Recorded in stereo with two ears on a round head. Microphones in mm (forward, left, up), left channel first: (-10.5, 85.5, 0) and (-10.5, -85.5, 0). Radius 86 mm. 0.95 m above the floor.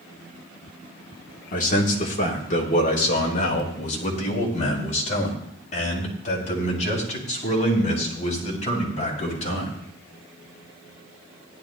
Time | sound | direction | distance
1.5 | a man speaking | 45° left (ahead or behind) | 2.5 m